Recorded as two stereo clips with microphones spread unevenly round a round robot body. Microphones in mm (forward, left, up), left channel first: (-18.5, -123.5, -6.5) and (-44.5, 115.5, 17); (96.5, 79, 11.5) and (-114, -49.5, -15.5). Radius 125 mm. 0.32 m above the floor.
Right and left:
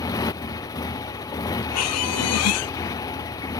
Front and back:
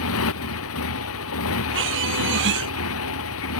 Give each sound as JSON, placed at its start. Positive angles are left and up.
{"t": 0.0, "sound": "a motorcycle", "azimuth_deg": -5}
{"t": 1.7, "sound": "a squeak", "azimuth_deg": -105}